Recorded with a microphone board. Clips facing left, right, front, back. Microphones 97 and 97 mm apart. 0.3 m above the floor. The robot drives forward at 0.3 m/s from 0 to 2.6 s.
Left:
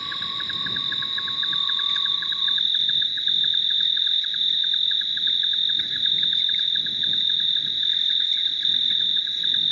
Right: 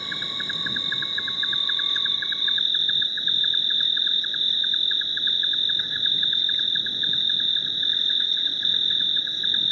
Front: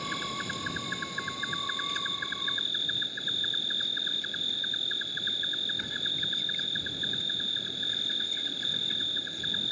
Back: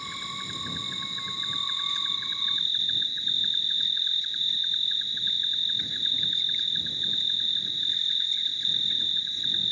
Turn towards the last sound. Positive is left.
turn(degrees=-35)